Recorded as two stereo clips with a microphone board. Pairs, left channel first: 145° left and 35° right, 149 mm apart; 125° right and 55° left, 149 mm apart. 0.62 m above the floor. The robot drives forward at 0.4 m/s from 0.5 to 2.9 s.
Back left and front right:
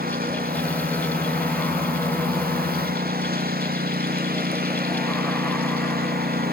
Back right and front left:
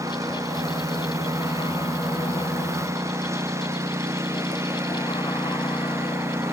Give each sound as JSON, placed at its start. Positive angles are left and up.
{"t": 0.0, "sound": "a lawn mower", "azimuth_deg": -15}